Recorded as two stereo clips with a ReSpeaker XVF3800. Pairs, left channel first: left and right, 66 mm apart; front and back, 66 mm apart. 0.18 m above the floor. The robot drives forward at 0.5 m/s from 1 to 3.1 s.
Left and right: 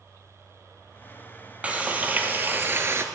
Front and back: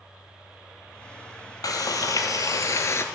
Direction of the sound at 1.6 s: 20° right.